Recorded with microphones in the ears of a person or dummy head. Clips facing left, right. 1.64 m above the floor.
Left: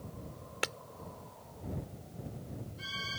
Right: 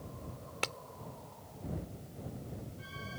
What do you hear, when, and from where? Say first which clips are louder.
0.6 s breaking glass: left 2 dB; 20° left (ahead or behind)